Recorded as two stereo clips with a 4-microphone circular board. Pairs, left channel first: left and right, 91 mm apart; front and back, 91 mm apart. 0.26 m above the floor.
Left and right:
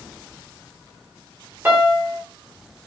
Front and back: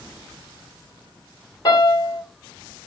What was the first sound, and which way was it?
A piano, 25° right.